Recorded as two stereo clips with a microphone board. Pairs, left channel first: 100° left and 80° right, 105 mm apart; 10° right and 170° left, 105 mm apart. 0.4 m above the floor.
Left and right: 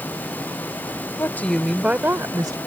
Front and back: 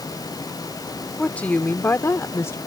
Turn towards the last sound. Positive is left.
turn(degrees=-65)